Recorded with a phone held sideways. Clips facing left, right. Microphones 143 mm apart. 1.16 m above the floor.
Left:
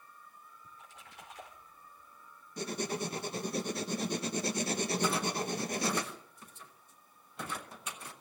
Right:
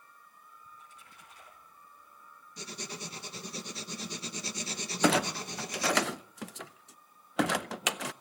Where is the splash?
80° left, 5 m.